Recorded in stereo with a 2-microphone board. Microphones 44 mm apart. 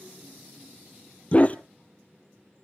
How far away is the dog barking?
About 1.0 m.